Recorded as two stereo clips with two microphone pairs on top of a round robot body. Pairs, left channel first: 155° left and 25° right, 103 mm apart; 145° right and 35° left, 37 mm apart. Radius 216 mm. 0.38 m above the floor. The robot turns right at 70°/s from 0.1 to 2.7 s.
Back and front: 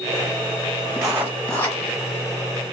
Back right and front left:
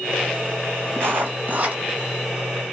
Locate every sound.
1.0 s writing: 35° left, 0.7 m; by 1.8 s 95° left, 0.7 m